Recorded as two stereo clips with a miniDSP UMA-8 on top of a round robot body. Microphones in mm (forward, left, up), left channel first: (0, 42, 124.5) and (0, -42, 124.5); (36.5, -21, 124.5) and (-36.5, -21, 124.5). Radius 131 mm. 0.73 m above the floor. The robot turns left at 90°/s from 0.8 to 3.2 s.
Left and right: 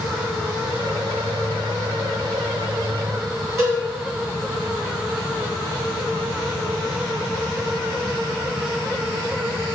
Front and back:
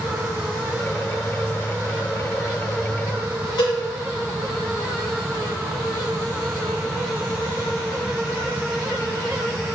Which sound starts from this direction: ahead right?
A cowbell, at 3.6 s.